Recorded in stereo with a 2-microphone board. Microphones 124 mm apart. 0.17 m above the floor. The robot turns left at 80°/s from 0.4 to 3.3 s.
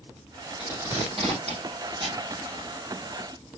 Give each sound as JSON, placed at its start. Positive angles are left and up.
{"t": 0.6, "sound": "tape being pulled", "side_deg": -5, "distance_m": 7.5}